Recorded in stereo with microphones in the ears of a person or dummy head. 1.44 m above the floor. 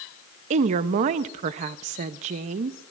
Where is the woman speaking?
35° right (ahead or behind), 0.5 m.